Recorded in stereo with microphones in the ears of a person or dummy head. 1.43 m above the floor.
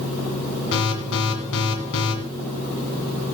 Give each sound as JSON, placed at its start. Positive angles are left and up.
{"t": 0.7, "sound": "an alarm", "side_deg": 70, "distance_m": 2.5}